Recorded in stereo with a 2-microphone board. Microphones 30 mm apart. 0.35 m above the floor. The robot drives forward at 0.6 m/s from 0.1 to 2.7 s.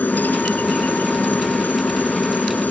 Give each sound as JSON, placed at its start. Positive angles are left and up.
{"t": 0.0, "sound": "a helicopter", "side_deg": 70}